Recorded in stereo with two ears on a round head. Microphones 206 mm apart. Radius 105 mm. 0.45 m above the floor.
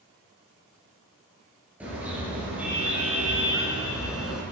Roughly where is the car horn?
Centre.